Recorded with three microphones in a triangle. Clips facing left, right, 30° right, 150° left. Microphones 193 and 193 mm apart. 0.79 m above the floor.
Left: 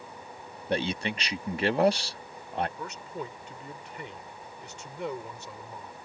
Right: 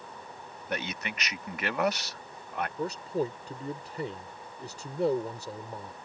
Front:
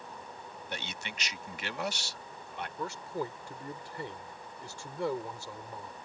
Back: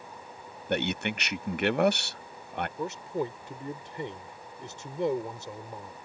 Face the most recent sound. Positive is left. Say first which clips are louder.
# right 8 dB, back 3 dB
turn(degrees=-140)